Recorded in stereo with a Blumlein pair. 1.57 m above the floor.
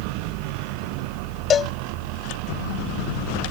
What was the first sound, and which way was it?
A cowbell, 25° left.